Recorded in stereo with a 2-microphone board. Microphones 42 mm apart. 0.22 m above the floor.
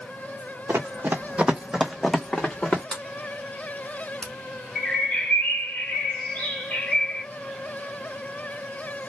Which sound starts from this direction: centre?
A sliding door, at 2.9 s.